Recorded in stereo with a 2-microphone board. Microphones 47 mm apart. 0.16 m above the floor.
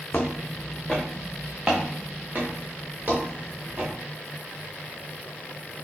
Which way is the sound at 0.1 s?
30° left (ahead or behind).